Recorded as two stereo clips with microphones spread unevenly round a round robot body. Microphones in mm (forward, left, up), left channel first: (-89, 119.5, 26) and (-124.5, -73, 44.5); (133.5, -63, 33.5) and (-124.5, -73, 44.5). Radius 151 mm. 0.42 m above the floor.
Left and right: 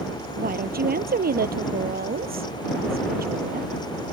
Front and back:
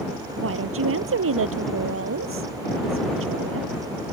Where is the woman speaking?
140° right.